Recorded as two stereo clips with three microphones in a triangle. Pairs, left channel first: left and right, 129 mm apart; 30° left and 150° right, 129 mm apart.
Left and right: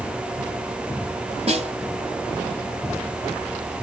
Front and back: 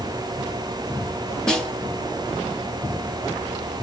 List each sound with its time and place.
1.5 s a snare drum: 55° right, 4 m